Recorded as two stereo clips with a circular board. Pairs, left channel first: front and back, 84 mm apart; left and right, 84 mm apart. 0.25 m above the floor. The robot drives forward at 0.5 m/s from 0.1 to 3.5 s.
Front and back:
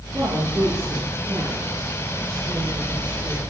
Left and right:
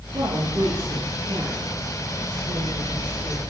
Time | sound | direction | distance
0.1 | a woman speaking | 130° right | 9 m